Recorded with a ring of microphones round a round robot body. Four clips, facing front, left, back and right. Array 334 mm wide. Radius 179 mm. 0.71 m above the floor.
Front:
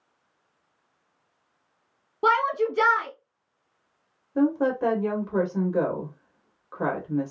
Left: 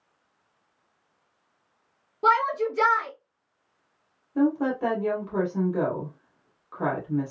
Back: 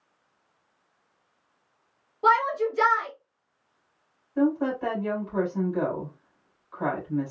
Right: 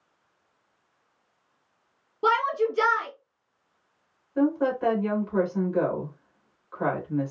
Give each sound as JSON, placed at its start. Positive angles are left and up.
{"t": 2.2, "sound": "a shout", "azimuth_deg": -10, "distance_m": 1.7}
{"t": 4.3, "sound": "a woman speaking", "azimuth_deg": 20, "distance_m": 2.0}